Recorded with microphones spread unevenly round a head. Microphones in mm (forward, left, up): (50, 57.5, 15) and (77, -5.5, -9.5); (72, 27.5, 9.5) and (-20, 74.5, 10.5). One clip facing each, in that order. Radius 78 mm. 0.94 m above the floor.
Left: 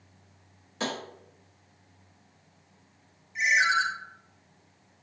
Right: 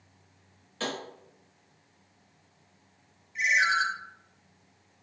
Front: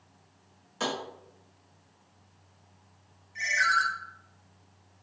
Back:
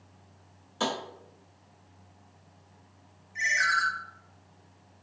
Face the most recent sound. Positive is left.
turn(degrees=55)